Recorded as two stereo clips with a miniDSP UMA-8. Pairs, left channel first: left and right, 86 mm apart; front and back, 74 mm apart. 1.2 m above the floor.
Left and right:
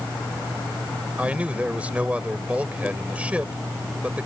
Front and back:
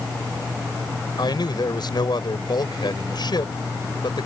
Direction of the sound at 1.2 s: 15° right.